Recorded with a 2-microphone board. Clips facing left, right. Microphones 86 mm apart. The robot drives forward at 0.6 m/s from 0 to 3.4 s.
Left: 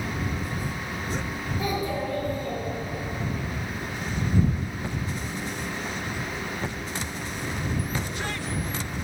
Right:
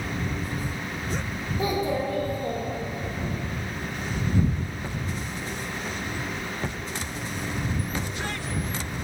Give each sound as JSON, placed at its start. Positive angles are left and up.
{"t": 1.6, "sound": "a child speaking", "side_deg": -25, "distance_m": 2.0}